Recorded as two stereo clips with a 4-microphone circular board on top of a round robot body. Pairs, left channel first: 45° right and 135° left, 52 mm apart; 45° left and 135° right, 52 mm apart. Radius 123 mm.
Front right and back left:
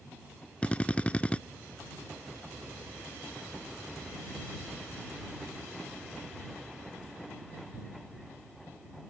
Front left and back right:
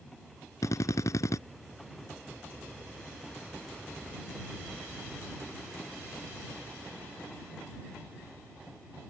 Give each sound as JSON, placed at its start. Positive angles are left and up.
{"t": 0.6, "sound": "a drill", "azimuth_deg": 25}